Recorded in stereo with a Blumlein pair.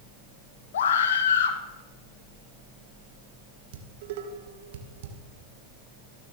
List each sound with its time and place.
0.7 s a scream: 60° left, 1.8 m
3.7 s dishes clattering: 55° right, 2 m